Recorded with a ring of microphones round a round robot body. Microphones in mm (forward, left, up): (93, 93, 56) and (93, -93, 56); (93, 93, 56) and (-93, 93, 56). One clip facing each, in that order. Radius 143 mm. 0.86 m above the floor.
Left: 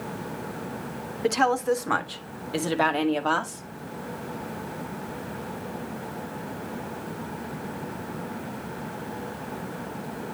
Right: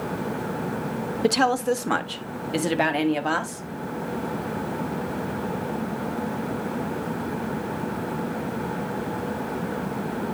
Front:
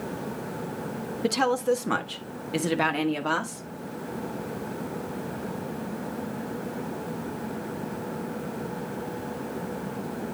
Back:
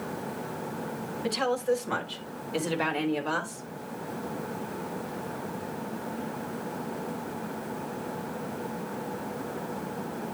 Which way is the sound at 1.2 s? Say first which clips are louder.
Right 1 dB, front 3 dB; 45° right.